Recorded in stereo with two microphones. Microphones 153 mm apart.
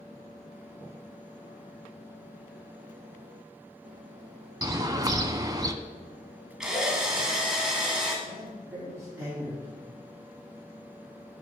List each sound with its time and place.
4.6 s a bird: 25° right (ahead or behind), 0.5 m
6.6 s a drill: 5° right (ahead or behind), 1.4 m
8.2 s a man speaking: 10° right (ahead or behind), 3 m